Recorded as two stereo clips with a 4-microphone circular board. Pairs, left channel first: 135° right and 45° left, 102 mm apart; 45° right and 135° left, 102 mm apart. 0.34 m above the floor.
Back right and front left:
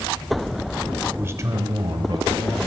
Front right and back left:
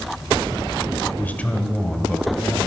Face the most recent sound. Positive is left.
turn(degrees=40)